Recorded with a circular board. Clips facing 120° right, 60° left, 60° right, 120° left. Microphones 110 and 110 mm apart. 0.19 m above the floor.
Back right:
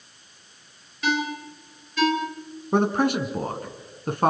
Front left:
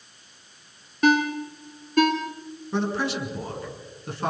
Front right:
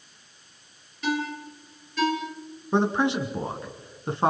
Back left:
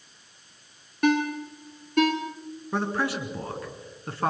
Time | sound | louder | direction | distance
1.0 | a ringtone | front left 6 dB, back left 5 dB | 95° left | 3 m
2.7 | a man speaking | back right 5 dB, front right 5 dB | 120° right | 2.5 m